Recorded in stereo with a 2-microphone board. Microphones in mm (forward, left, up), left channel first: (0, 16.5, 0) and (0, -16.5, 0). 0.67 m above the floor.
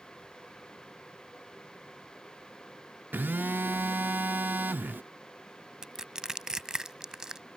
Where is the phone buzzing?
80° right.